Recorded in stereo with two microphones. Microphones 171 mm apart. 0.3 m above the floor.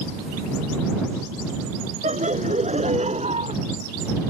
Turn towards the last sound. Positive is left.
turn(degrees=-40)  # may be behind; listen again after turning